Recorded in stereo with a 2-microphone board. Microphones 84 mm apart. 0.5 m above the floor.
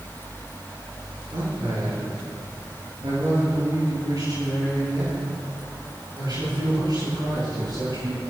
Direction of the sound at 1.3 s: 60° right (ahead or behind).